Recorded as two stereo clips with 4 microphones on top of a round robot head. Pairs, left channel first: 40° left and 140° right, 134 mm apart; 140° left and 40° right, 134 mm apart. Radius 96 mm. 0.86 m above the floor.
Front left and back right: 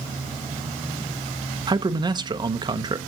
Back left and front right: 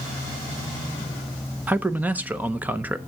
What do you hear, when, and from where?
1.7 s a man speaking: 110° right, 0.7 m